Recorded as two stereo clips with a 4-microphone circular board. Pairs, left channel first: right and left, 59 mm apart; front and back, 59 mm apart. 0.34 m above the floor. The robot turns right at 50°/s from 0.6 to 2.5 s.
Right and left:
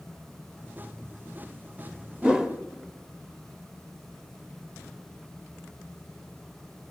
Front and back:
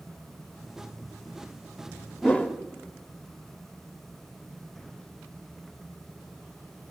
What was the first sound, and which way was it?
A whoosh, 25° left.